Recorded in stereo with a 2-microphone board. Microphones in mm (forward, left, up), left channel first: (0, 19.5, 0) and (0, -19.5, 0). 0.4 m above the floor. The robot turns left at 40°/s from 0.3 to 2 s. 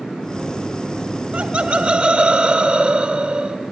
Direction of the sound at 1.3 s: 35° right (ahead or behind).